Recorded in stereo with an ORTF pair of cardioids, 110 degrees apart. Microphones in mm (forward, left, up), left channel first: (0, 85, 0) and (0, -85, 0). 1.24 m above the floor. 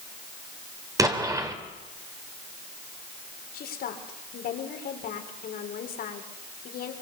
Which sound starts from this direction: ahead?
An explosion, at 1.0 s.